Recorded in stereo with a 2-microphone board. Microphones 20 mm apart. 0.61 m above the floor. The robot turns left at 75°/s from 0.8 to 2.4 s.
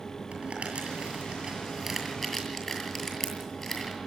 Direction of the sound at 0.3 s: 85° right.